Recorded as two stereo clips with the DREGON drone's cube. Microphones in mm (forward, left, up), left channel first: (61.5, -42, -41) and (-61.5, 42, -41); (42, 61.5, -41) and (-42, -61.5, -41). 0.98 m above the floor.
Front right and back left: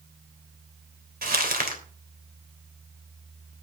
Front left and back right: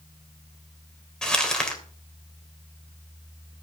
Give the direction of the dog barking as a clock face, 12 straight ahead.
No dog barking in this recording.